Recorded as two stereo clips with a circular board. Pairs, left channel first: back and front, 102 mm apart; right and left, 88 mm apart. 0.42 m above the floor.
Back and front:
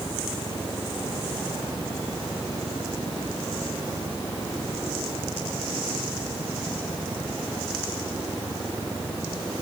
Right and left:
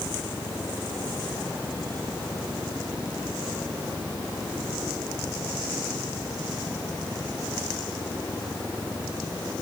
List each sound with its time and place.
Only background noise.